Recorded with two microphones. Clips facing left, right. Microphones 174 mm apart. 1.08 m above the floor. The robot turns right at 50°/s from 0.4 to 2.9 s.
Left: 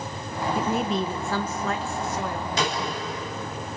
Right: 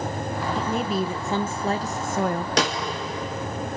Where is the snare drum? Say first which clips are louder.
Right 2 dB; 75° right (ahead or behind), 2 m.